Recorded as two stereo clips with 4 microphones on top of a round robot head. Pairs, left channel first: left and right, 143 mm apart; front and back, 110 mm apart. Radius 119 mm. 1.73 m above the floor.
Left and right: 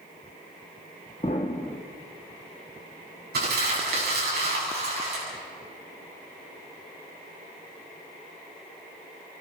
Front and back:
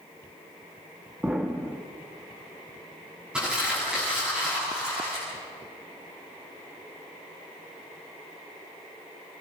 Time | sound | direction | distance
1.2 | an explosion | 110° left | 1.3 m
3.3 | crumpling | 95° right | 8 m